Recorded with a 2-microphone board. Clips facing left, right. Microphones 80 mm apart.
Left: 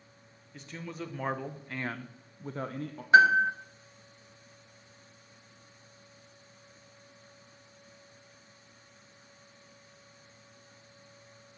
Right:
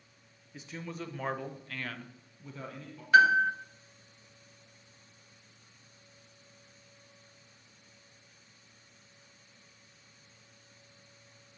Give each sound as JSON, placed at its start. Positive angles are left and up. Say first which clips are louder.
{"t": 0.5, "sound": "a man speaking", "louder": "even", "side_deg": -5, "distance_m": 1.2}
{"t": 3.1, "sound": "a piano", "louder": "left 2 dB", "side_deg": 30, "distance_m": 1.2}